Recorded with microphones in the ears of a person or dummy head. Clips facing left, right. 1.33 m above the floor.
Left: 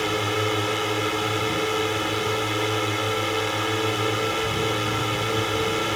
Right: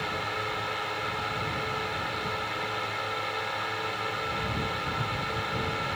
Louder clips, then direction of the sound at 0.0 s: Left 10 dB; 50° left (ahead or behind).